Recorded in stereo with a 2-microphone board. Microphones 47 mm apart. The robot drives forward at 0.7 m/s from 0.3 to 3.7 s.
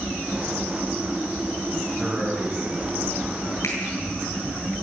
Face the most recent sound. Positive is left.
turn(degrees=80)